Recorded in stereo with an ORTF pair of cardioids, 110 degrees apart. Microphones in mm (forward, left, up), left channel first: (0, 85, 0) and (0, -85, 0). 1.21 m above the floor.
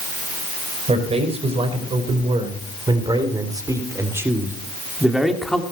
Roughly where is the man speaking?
Ahead right.